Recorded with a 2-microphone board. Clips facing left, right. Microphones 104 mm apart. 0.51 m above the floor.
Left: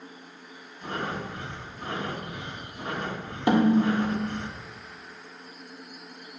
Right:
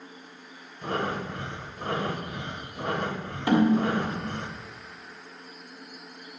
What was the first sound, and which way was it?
Breathing, 55° right (ahead or behind).